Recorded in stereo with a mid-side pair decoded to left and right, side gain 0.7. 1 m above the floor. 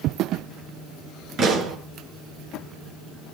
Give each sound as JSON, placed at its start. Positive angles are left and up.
{"t": 1.4, "sound": "a pop", "azimuth_deg": -40, "distance_m": 6.5}